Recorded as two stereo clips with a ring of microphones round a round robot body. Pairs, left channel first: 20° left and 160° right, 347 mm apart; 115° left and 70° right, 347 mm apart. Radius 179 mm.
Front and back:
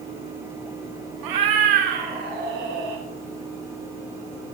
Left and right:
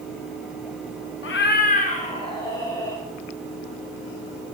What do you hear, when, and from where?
1.2 s a cat meowing: 170° left, 1.5 m; by 3.0 s 165° right, 3.5 m